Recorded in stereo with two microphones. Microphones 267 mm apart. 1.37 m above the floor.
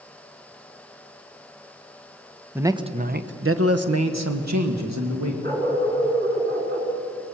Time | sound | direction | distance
2.5 | a man speaking | 5° right (ahead or behind) | 1.0 m
5.4 | a dog barking | 35° right (ahead or behind) | 7 m